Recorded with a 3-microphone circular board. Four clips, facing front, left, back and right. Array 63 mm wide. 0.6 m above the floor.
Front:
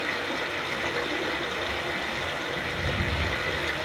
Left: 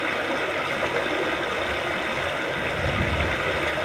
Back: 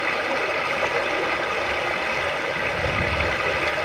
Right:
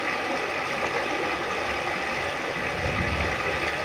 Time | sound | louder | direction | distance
0.0 | running water | left 2 dB, back 6 dB | 150° left | 3 m